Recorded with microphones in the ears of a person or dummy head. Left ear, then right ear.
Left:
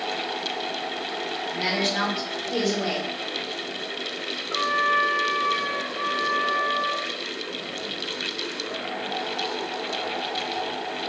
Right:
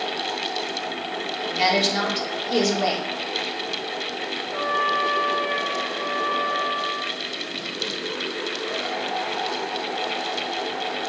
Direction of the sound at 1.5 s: 55° right (ahead or behind).